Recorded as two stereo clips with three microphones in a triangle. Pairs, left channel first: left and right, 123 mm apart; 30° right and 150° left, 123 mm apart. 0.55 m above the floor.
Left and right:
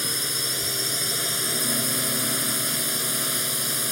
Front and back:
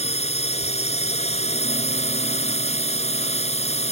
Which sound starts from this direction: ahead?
A drone, at 0.0 s.